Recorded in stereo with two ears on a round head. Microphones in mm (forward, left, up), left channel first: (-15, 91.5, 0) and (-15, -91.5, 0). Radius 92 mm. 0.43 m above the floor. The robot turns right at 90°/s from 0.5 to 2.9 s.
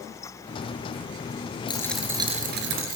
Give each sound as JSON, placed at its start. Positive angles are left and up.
{"t": 1.7, "sound": "a dropped coin", "azimuth_deg": 155, "distance_m": 2.5}